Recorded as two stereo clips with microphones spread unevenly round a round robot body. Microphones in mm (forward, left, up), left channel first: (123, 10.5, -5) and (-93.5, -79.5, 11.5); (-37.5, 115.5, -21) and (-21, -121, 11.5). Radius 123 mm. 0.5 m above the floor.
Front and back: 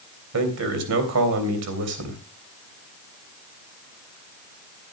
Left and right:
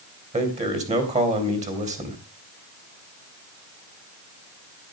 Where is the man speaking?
150° right, 3 m.